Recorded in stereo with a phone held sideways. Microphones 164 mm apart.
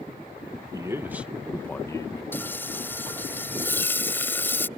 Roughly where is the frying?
Centre.